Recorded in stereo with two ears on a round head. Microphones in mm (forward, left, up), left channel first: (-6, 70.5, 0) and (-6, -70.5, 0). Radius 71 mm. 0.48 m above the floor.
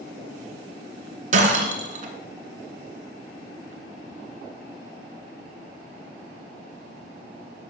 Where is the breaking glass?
50° right (ahead or behind), 2 m.